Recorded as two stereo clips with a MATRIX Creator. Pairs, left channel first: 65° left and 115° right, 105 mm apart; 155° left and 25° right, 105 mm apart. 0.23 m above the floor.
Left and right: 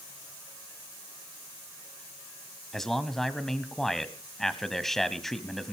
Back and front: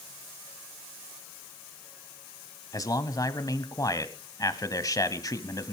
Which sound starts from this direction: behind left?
A man speaking, at 2.7 s.